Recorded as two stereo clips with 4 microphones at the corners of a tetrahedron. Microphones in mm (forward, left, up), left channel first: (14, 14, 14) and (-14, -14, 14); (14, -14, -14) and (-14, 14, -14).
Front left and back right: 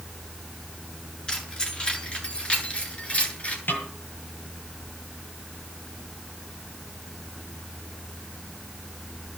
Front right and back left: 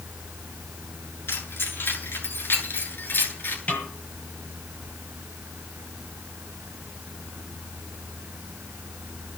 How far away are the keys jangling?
About 8.5 m.